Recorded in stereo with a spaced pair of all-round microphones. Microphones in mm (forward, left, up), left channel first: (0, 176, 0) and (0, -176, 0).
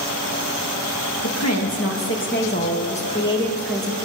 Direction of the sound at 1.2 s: 50° left (ahead or behind).